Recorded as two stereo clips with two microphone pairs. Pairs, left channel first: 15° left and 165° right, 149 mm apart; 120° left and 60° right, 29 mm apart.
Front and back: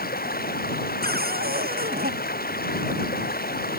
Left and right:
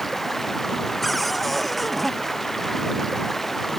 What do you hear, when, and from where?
0.0 s running water: 35° left
1.0 s a cupboard door: 160° right